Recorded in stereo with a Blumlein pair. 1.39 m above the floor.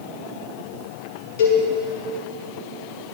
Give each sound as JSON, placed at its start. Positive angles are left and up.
{"t": 1.4, "sound": "a cowbell", "azimuth_deg": 55, "distance_m": 2.5}